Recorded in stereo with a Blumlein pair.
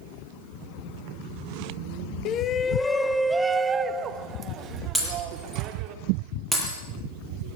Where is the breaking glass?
Straight ahead, 9 m.